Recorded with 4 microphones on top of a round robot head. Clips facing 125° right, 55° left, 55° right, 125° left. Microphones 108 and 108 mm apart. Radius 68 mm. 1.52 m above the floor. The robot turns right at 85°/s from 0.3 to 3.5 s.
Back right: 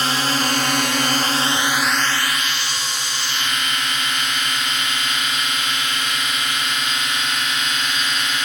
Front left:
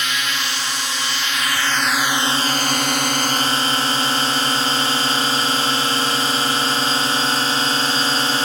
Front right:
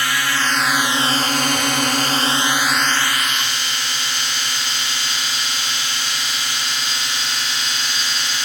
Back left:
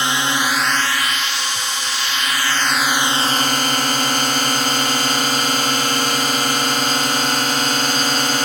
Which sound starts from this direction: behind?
A drone, at 0.0 s.